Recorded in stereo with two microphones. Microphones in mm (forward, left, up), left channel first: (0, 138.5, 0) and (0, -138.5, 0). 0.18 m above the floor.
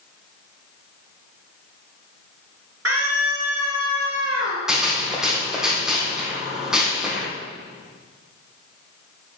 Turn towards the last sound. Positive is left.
turn(degrees=-5)  # may be behind; listen again after turning